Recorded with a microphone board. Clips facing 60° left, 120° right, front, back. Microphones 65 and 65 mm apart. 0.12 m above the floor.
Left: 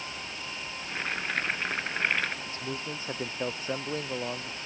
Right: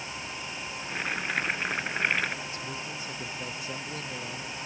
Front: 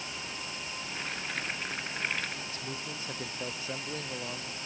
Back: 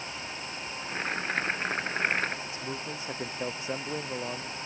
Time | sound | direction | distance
0.8 | boiling | 160° left | ?
2.5 | a man speaking | 110° left | ?